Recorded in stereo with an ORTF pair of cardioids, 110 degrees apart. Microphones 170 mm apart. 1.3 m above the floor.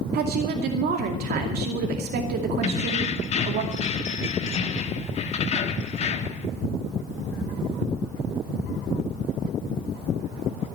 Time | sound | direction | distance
0.1 | a woman speaking | 65° right | 2.5 m
2.6 | keys jangling | 40° left | 1.5 m